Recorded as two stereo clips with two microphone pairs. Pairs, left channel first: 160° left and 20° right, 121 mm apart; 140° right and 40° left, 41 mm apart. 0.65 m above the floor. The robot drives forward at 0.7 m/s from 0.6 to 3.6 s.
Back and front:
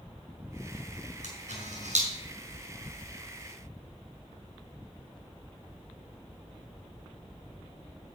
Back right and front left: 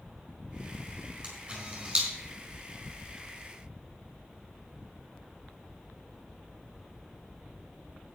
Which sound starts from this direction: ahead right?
A camera shutter, at 1.2 s.